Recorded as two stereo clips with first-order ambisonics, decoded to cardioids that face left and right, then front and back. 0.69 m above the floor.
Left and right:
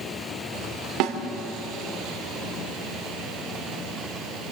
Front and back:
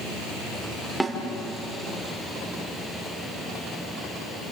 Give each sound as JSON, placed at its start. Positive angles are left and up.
{"t": 1.0, "sound": "a snare drum", "azimuth_deg": -90, "distance_m": 2.5}